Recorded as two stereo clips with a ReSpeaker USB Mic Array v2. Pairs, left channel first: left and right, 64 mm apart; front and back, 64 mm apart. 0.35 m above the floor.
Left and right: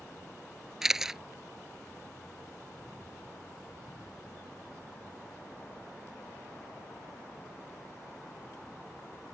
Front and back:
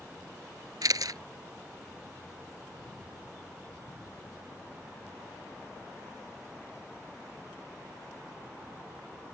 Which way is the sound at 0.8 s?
175° right.